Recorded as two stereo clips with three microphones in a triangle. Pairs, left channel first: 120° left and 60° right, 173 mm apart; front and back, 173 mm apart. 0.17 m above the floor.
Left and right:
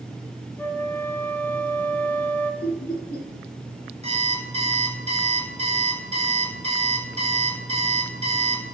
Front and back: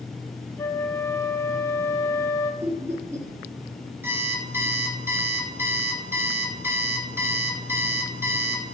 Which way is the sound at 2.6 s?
105° left.